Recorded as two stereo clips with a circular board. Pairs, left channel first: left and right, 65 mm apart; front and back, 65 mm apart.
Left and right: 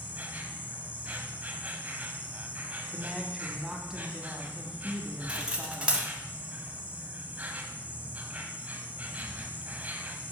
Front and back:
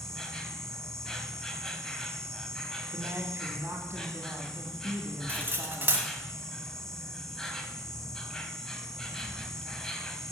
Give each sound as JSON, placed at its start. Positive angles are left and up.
{"t": 0.0, "sound": "an insect", "azimuth_deg": -70, "distance_m": 0.7}
{"t": 2.9, "sound": "a woman speaking", "azimuth_deg": -165, "distance_m": 1.2}
{"t": 5.3, "sound": "cutlery clinking", "azimuth_deg": -150, "distance_m": 1.0}